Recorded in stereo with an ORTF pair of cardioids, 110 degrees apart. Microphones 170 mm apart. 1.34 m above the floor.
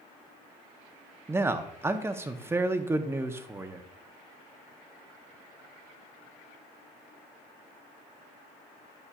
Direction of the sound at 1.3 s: 15° right.